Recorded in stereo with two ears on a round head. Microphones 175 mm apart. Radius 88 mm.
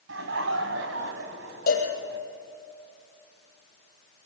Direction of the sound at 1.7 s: 45° left (ahead or behind).